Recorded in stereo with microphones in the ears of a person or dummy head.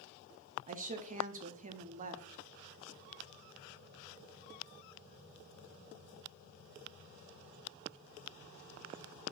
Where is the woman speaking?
40° right (ahead or behind), 0.5 m.